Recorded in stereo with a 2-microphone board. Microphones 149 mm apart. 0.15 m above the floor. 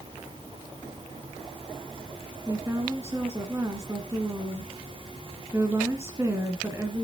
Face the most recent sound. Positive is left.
turn(degrees=-20)  # may be behind; listen again after turning